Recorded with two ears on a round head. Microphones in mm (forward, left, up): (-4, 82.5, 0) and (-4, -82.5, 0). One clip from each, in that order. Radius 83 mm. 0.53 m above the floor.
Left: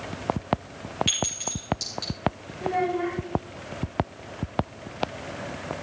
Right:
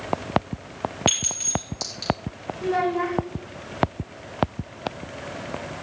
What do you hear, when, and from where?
1.1 s a clink: 10° right (ahead or behind), 5 m
2.6 s a child speaking: 70° right (ahead or behind), 3 m